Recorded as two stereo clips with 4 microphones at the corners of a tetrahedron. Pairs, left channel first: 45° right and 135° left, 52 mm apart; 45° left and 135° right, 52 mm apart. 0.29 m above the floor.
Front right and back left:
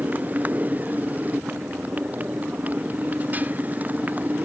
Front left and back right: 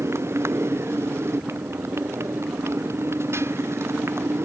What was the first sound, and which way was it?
A motorcycle, 165° right.